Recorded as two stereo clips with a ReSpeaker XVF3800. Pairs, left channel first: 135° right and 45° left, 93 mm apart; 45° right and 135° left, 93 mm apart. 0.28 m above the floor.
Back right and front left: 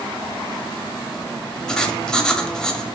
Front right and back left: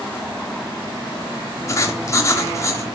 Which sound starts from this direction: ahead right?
Writing, at 1.7 s.